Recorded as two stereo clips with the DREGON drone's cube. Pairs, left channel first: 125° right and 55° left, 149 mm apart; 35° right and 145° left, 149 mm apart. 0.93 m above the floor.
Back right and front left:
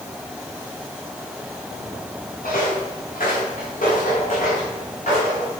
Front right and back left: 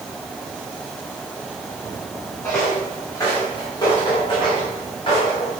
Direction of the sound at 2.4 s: 105° right.